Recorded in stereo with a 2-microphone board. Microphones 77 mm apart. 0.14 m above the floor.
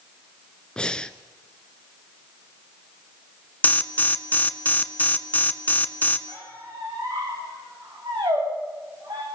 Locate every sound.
0.8 s breathing: 10° left (ahead or behind), 0.7 m
3.6 s an alarm: 25° left (ahead or behind), 1.2 m
6.3 s a squeak: 75° right (ahead or behind), 8 m